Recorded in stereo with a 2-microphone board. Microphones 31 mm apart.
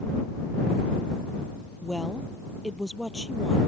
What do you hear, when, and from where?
1.8 s a woman speaking: 5° left (ahead or behind)